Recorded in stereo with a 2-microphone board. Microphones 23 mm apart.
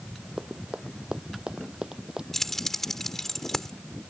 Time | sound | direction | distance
0.4 | running footsteps | 45° right (ahead or behind) | ?
2.3 | keys jangling | 15° left (ahead or behind) | ?